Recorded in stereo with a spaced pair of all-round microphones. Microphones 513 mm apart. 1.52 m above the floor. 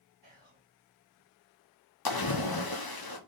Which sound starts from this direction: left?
A splash, at 2.0 s.